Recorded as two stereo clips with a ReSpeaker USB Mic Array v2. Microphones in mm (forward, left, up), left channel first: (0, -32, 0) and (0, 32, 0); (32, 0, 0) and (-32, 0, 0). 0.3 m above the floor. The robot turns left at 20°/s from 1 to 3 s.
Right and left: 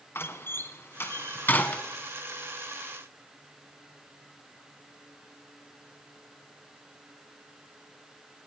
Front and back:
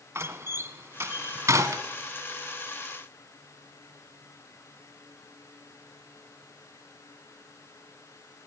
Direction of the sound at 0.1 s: 135° right.